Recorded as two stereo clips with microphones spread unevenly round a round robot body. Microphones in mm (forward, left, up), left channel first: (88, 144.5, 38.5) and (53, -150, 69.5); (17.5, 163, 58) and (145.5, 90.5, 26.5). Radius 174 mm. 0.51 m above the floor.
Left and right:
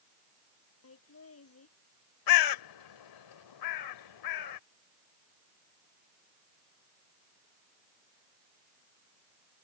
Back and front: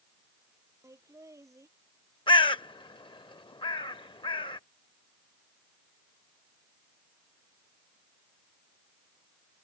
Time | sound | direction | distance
0.8 | laughter | 40° left | ?
2.3 | a bird | 90° left | ?